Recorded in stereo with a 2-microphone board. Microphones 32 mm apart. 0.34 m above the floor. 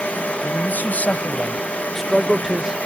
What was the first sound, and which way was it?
A man speaking, 70° left (ahead or behind).